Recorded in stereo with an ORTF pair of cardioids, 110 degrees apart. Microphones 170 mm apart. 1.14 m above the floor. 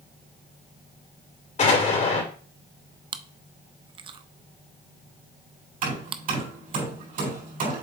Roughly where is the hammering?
Ahead right.